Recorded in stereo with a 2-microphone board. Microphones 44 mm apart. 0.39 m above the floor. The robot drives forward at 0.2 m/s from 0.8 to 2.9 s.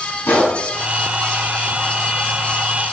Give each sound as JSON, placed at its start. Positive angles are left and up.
{"t": 0.2, "sound": "a gunshot", "side_deg": 65, "distance_m": 4.5}